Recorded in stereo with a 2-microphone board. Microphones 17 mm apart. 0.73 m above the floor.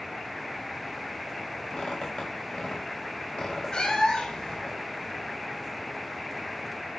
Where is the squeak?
80° left, 3 m.